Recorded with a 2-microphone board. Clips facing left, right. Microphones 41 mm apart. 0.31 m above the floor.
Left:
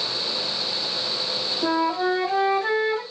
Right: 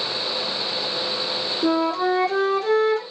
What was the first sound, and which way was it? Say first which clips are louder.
A flute: right 2 dB; 20° left (ahead or behind).